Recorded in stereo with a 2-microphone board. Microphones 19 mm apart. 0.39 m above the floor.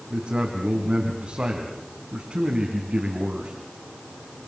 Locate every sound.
0.1 s a man speaking: 65° right (ahead or behind), 3.5 m